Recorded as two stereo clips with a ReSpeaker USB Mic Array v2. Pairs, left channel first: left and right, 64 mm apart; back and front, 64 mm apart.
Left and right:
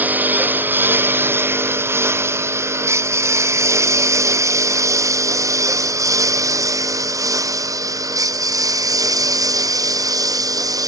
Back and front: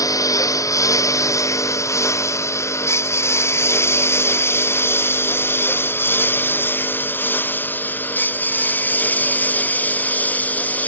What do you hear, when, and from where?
0.0 s a lawn mower: 155° right; by 10.9 s 115° right